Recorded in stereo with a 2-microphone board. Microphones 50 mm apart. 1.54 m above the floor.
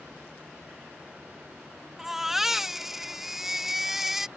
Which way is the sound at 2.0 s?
10° right (ahead or behind).